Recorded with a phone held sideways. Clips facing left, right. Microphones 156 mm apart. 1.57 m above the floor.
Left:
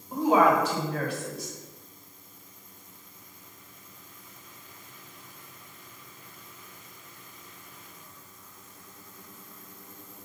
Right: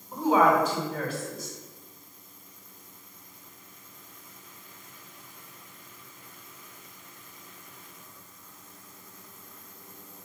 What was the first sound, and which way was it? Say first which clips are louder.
A woman speaking: even; 70° left (ahead or behind).